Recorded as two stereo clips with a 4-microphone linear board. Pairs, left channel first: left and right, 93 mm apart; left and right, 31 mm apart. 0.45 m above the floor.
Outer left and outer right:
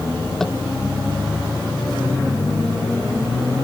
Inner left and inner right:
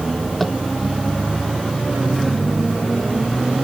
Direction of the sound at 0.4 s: 5° left (ahead or behind).